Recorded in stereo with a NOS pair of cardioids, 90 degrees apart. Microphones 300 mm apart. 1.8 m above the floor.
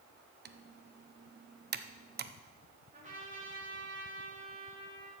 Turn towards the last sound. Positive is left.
turn(degrees=-25)